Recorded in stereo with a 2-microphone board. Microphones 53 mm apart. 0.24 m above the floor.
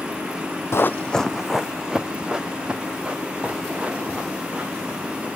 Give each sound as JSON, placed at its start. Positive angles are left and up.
{"t": 0.7, "sound": "running footsteps", "side_deg": 60, "distance_m": 0.6}